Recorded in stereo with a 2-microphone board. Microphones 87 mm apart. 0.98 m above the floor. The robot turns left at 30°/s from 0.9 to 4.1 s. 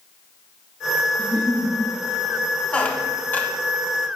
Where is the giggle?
50° right (ahead or behind), 1.7 m; by 1.8 s 35° right (ahead or behind), 1.7 m.